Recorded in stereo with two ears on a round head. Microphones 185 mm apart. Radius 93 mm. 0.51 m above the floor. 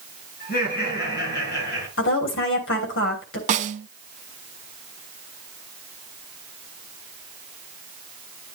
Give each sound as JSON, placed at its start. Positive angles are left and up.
{"t": 0.4, "sound": "laughter", "side_deg": 45, "distance_m": 5.0}
{"t": 2.0, "sound": "a woman speaking", "side_deg": 60, "distance_m": 3.5}
{"t": 3.5, "sound": "a snare drum", "side_deg": -35, "distance_m": 0.6}